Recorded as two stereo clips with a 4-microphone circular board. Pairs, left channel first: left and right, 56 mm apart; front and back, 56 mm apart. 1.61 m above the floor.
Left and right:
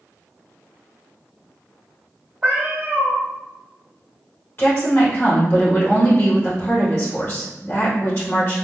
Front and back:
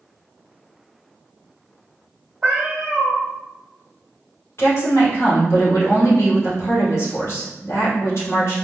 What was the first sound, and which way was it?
A cat meowing, 140° right.